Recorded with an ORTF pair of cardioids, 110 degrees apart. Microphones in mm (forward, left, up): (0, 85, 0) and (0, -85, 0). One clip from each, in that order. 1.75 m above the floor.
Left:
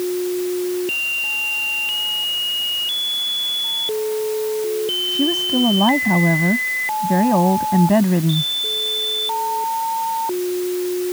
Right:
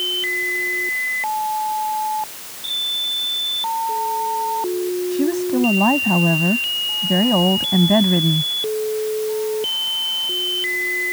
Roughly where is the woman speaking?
Ahead.